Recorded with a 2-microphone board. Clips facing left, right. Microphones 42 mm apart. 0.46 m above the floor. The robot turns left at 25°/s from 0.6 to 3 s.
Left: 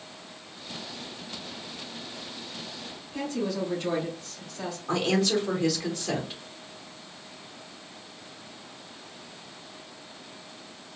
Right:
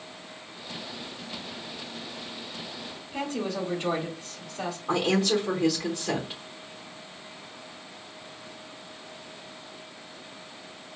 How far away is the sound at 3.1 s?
About 1.2 m.